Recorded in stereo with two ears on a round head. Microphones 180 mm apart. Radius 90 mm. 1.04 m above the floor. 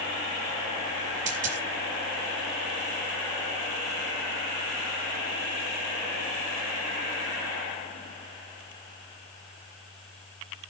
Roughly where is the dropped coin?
Right.